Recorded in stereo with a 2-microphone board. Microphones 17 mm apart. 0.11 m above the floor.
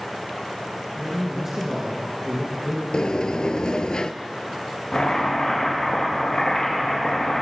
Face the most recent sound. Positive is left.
turn(degrees=65)  # may be behind; listen again after turning